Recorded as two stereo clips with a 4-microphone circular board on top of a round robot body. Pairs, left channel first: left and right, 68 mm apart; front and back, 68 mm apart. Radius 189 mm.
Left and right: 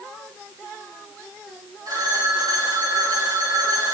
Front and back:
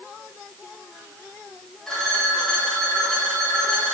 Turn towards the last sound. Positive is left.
turn(degrees=-80)